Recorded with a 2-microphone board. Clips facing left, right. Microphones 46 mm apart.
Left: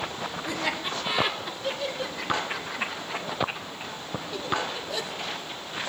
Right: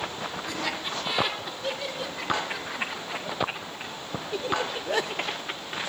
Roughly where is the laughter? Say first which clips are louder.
Left 3 dB; centre.